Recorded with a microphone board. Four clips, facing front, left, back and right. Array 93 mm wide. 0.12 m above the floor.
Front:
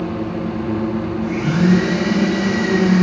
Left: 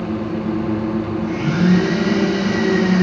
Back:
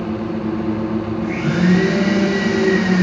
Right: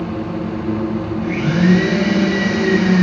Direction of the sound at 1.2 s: 120° right.